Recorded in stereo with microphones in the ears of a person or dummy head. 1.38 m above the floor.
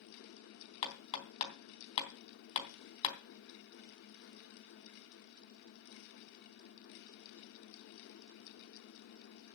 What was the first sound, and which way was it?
Hammering, 40° left (ahead or behind).